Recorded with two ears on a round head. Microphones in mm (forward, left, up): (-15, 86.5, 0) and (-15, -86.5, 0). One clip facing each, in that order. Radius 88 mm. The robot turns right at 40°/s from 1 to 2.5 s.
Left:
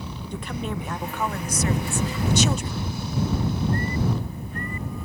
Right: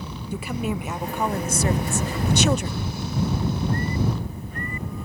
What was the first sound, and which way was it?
A woman speaking, 170° right.